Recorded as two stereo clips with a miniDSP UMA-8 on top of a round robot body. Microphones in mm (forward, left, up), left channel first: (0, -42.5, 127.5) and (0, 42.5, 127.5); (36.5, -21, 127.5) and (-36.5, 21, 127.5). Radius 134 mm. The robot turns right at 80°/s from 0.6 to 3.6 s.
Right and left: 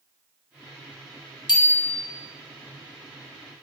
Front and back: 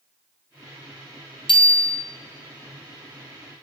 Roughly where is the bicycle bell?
Ahead right.